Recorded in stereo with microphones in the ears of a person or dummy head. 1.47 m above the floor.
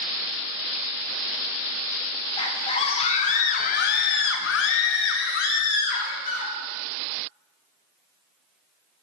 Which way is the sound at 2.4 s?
25° left (ahead or behind).